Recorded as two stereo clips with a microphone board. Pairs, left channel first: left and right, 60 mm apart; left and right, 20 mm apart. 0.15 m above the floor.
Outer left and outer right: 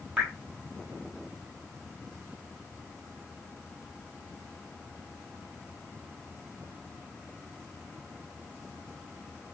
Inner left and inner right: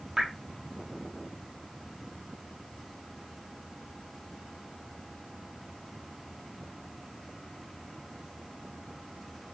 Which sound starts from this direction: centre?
Dripping, at 0.2 s.